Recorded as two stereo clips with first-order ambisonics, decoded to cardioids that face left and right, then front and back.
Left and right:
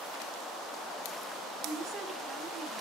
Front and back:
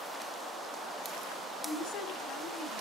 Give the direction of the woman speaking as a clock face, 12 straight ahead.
1 o'clock.